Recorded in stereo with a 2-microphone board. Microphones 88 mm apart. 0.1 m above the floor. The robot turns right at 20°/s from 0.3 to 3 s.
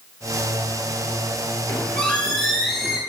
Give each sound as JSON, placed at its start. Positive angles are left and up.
{"t": 1.7, "sound": "a squeak", "side_deg": 20, "distance_m": 1.4}